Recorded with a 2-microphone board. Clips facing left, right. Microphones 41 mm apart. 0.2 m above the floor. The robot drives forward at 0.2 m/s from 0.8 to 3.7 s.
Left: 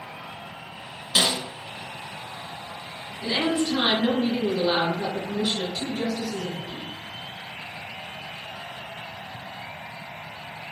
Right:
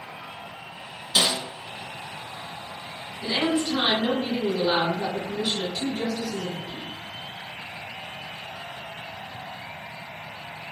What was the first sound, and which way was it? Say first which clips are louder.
A snare drum: even; 25° left (ahead or behind).